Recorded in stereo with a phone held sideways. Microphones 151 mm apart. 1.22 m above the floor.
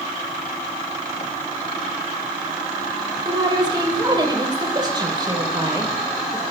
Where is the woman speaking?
30° right (ahead or behind), 3.5 m.